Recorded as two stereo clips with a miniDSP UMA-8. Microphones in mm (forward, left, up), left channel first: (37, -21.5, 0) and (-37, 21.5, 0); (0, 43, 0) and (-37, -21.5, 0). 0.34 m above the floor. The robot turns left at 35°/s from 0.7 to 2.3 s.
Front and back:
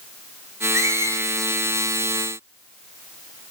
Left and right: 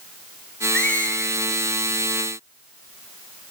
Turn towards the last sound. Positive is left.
turn(degrees=75)